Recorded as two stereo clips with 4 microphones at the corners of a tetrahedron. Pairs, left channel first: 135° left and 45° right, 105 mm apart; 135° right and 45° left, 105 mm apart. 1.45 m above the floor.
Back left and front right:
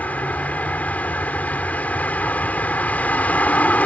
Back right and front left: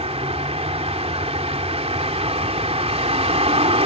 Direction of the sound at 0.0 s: 60° left.